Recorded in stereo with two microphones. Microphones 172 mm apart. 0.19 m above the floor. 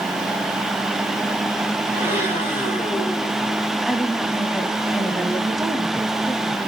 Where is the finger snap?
I don't hear a finger snap.